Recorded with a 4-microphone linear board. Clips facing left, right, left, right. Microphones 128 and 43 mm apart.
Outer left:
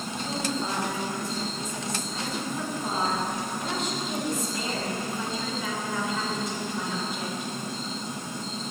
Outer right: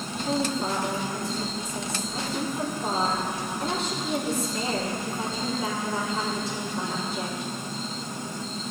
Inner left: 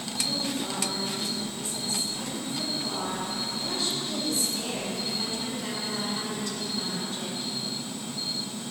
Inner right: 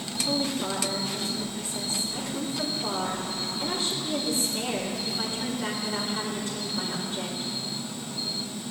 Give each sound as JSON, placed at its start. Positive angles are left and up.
{"t": 0.2, "sound": "a woman speaking", "side_deg": -35, "distance_m": 3.5}